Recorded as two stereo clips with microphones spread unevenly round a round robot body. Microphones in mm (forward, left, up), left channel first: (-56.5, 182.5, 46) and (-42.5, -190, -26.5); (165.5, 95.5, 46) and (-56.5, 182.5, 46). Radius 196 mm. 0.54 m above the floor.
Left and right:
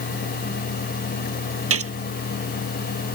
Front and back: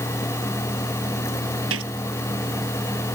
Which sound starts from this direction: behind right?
A gunshot, at 1.7 s.